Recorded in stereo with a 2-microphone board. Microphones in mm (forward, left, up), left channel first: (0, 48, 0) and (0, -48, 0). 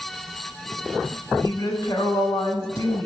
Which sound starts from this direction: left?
A woman speaking, at 1.4 s.